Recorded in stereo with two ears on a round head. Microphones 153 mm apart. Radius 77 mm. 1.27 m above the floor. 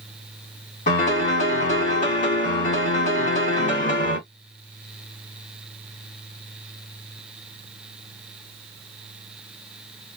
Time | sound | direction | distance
0.9 | a piano | 50° left (ahead or behind) | 2 m